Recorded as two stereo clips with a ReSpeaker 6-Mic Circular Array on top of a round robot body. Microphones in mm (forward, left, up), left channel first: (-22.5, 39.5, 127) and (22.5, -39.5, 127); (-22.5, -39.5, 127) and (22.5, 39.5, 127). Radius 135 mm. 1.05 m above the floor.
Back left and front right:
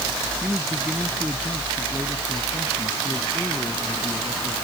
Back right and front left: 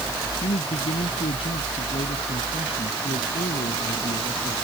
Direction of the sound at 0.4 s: 140° right.